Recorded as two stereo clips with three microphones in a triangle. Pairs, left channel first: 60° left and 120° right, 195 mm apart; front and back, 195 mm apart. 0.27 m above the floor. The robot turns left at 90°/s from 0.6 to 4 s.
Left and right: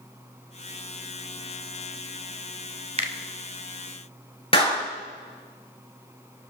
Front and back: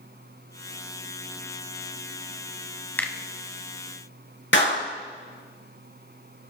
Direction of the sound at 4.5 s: Straight ahead.